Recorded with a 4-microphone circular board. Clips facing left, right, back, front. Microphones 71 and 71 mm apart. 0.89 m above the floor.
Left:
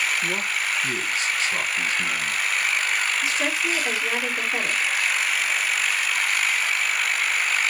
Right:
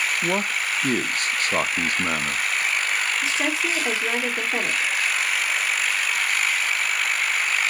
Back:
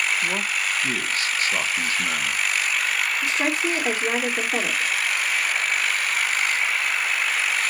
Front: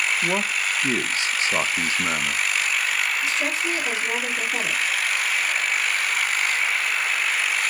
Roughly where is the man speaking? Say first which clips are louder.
Right 2 dB, front 1 dB; ahead right.